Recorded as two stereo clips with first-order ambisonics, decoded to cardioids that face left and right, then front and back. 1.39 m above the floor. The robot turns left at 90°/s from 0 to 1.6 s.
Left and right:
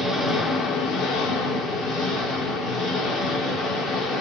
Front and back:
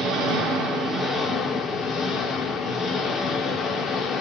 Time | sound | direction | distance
0.0 | an engine running | 155° right | 1.1 m